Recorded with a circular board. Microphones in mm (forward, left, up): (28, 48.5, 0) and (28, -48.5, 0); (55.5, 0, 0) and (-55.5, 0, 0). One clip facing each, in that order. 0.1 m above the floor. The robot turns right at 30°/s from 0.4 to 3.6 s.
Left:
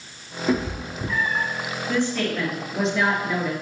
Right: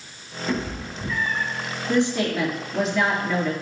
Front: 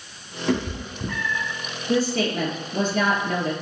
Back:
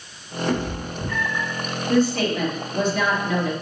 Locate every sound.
0.5 s a cat meowing: 25° left, 3 m; by 1.5 s 50° left, 3 m
1.9 s a woman speaking: 30° right, 1.9 m; by 3.5 s 20° left, 1.9 m